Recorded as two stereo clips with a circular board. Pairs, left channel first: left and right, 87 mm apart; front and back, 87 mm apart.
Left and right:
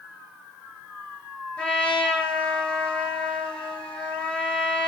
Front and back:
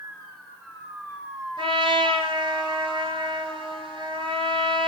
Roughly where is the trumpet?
Behind.